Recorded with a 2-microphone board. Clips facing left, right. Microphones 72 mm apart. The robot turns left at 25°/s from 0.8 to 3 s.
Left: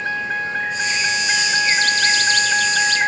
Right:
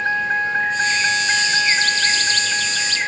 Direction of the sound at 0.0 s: 160° right.